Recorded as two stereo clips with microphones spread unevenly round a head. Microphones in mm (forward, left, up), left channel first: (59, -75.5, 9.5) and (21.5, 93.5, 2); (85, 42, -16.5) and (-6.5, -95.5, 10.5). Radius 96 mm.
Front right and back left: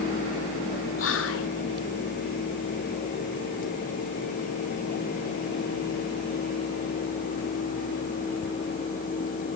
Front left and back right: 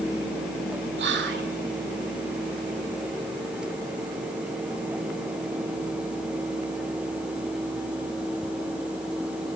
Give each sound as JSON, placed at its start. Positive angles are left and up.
{"t": 1.0, "sound": "whispering", "azimuth_deg": -110, "distance_m": 3.5}